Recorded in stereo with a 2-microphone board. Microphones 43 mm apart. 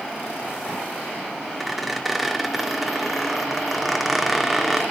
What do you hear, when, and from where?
1.6 s a squeak: centre (ahead or behind), 0.8 m